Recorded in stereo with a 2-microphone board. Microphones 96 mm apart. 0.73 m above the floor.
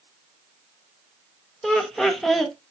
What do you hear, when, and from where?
1.6 s laughter: 5° left (ahead or behind), 0.7 m